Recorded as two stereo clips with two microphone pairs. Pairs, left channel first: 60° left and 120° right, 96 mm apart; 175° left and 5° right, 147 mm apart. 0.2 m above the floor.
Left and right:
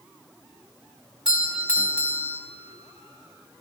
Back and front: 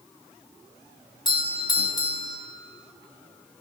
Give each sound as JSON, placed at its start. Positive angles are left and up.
{"t": 1.2, "sound": "a doorbell", "azimuth_deg": 170, "distance_m": 2.0}